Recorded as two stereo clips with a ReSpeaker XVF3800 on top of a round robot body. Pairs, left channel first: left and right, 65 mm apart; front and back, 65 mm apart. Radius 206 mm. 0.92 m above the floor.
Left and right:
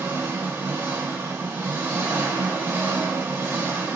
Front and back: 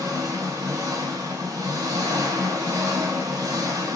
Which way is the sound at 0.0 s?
160° right.